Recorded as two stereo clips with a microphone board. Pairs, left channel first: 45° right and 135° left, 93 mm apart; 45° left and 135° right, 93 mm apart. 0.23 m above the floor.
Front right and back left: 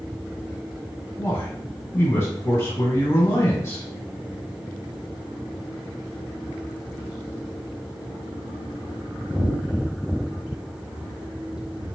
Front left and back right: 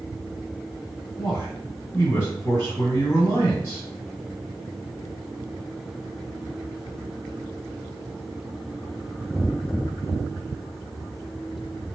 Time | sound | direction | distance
1.2 | a man speaking | straight ahead | 1.6 m